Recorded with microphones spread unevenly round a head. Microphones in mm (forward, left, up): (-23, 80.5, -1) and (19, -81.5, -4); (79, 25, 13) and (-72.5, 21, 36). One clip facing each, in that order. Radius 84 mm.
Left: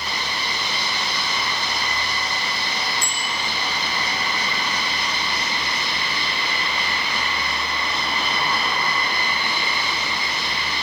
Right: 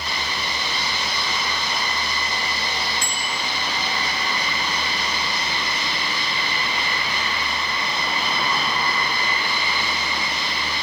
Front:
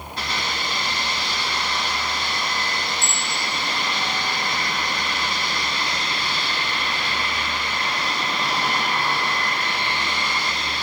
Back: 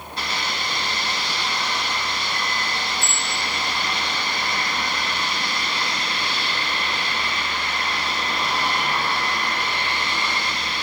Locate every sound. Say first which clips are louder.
3.0 s a bicycle bell: even, even; 100° right, 4.5 m